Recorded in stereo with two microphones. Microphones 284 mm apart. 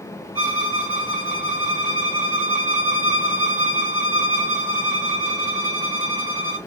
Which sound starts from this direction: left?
A violin, at 0.3 s.